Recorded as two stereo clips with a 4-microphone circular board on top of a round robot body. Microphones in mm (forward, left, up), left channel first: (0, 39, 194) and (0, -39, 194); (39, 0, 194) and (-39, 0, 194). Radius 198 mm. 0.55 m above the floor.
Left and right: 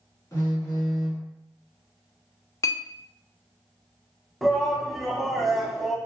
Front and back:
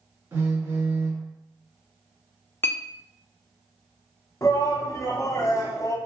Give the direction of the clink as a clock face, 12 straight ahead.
10 o'clock.